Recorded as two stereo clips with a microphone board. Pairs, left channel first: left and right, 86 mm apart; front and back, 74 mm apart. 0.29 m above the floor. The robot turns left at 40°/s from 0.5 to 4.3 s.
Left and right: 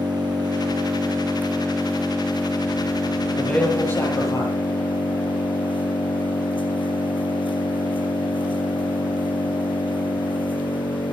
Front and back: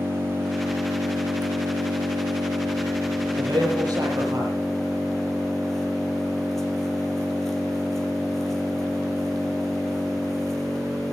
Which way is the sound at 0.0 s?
120° right.